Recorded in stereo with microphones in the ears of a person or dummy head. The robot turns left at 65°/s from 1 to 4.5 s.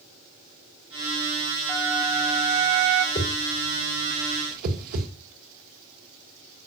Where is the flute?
15° left, 3 m; by 3.0 s 75° right, 3 m.